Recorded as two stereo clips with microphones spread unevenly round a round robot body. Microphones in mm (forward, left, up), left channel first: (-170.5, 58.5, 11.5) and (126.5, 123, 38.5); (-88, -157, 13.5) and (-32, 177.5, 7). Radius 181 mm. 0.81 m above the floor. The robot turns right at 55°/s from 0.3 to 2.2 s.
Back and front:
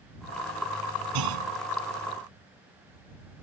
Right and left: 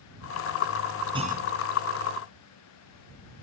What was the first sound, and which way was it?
A clunk, straight ahead.